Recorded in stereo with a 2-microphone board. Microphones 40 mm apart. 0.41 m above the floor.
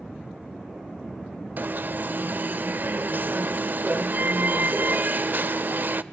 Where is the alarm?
55° right (ahead or behind), 0.7 m.